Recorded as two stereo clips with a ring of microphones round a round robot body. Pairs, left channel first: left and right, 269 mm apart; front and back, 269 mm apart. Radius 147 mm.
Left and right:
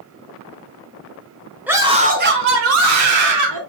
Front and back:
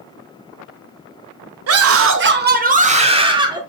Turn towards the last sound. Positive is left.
turn(degrees=-105)